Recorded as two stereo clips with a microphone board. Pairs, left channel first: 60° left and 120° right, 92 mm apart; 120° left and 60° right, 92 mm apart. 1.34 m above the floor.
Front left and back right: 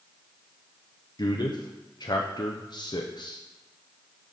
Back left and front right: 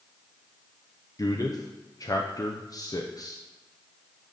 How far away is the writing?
No writing in this recording.